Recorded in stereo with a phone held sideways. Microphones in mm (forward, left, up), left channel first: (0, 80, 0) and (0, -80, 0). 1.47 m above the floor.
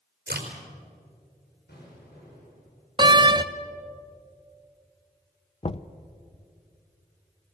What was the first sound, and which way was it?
A crack, 80° right.